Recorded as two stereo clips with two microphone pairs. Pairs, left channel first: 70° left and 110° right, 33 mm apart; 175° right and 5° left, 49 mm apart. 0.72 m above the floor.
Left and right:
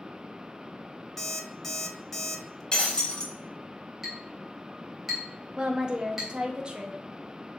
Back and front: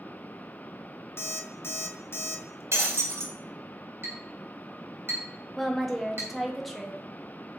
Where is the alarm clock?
150° left, 0.6 m.